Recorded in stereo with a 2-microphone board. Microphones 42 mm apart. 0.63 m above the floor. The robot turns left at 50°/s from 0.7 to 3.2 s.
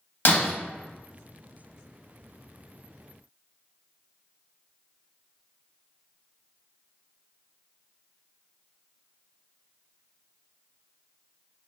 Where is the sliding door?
I don't hear a sliding door.